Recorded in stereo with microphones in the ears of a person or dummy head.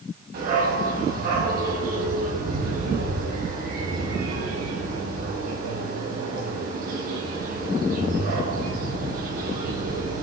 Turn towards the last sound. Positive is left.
turn(degrees=-50)  # may be behind; listen again after turning